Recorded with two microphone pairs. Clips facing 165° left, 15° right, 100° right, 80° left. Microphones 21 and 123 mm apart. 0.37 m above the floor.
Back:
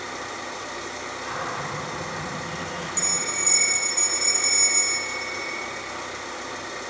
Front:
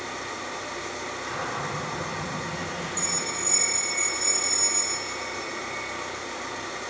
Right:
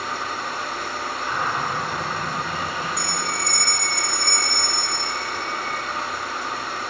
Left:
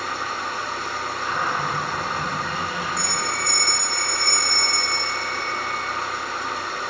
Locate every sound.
0.0 s an engine running: 160° right, 1.6 m
1.2 s a cupboard door: 125° left, 1.6 m
3.0 s a bell: 120° left, 0.8 m